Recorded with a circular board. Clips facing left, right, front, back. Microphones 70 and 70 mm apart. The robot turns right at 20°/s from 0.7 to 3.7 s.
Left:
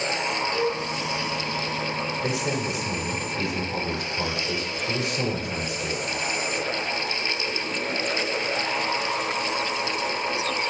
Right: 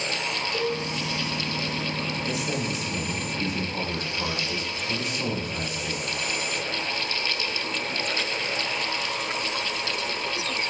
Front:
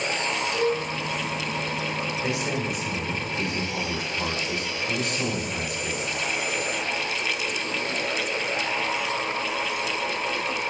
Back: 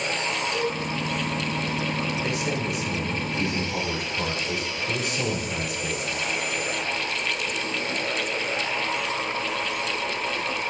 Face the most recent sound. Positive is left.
turn(degrees=115)